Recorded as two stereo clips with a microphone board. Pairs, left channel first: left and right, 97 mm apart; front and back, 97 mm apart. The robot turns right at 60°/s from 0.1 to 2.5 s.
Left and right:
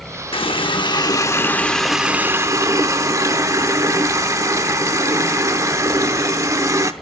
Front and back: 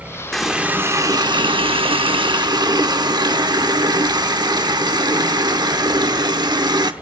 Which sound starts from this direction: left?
A running tap, at 0.3 s.